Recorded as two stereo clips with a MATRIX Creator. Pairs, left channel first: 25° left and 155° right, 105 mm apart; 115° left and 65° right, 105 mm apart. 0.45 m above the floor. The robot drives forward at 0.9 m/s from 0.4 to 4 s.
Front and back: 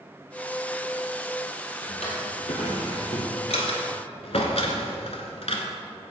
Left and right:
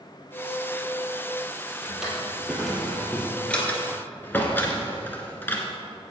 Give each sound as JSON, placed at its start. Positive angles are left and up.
{"t": 1.8, "sound": "a drawer", "azimuth_deg": 20, "distance_m": 3.0}